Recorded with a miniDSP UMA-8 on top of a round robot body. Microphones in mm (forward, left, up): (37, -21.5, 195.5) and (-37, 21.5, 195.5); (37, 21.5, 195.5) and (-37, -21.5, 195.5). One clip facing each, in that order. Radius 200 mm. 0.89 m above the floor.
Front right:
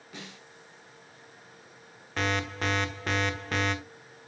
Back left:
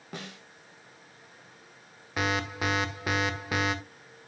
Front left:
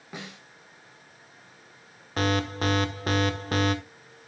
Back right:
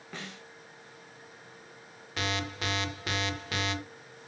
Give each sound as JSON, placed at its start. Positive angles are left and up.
{"t": 0.1, "sound": "a snare drum", "azimuth_deg": 110, "distance_m": 1.5}
{"t": 2.2, "sound": "an alarm", "azimuth_deg": 70, "distance_m": 1.6}